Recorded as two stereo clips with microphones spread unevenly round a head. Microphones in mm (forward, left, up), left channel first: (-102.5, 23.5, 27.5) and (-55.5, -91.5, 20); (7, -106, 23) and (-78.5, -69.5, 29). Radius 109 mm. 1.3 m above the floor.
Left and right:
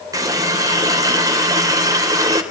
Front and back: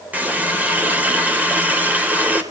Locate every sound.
0.1 s a running tap: 130° right, 3.5 m